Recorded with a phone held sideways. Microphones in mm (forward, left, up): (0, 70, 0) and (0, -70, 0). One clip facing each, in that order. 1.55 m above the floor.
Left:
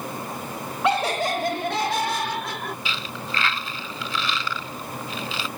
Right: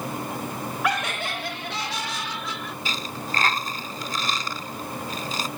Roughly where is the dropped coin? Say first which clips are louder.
Right 1 dB; right.